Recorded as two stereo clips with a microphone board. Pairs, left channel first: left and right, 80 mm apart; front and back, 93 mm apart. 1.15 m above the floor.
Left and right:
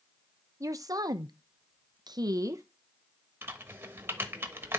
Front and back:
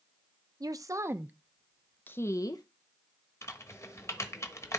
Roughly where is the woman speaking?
Behind right.